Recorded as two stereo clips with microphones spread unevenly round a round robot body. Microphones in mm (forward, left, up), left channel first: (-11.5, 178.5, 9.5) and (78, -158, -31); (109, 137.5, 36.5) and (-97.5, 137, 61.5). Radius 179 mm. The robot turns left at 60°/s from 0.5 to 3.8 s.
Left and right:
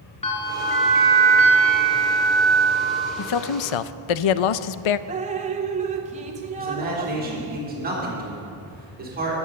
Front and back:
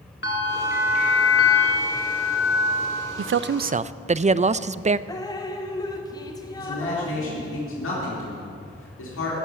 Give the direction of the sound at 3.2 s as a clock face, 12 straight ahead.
7 o'clock.